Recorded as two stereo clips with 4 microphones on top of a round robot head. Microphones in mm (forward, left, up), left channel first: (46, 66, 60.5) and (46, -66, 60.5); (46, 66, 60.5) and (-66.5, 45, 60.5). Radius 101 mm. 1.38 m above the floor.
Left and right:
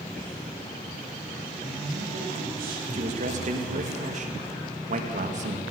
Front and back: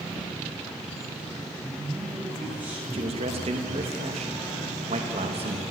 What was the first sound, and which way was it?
A man speaking, 90° right.